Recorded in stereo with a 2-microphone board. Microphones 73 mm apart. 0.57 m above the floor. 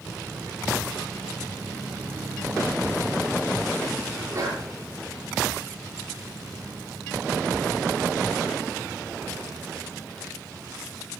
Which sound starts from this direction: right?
A sneeze, at 4.2 s.